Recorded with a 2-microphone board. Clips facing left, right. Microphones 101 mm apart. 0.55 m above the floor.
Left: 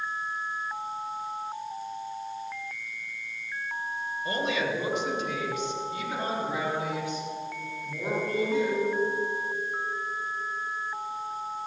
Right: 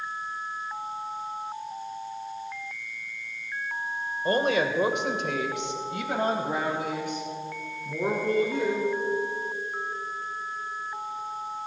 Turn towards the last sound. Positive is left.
turn(degrees=-55)  # may be behind; listen again after turning